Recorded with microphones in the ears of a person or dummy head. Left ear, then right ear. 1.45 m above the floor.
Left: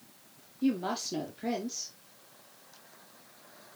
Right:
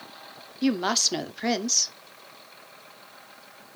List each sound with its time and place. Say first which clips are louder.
0.6 s a woman speaking: right 8 dB; 55° right (ahead or behind), 0.7 m